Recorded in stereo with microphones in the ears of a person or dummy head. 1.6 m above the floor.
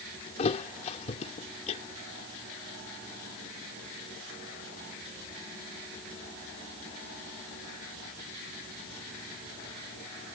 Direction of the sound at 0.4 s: 40° left (ahead or behind).